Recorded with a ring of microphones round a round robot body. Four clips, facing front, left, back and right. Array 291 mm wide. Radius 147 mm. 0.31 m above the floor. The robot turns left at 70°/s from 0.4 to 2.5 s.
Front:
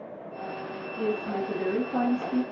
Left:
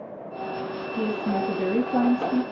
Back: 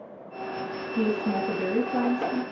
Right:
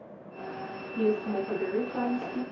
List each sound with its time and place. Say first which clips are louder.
1.0 s a woman speaking: left 1 dB, back 3 dB; straight behind, 7.5 m; by 2.4 s 80° left, 7.5 m